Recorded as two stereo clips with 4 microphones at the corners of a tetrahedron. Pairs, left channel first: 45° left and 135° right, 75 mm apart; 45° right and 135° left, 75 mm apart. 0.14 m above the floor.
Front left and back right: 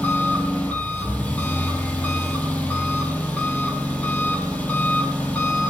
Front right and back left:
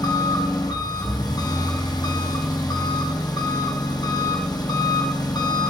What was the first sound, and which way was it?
An engine running, 25° right.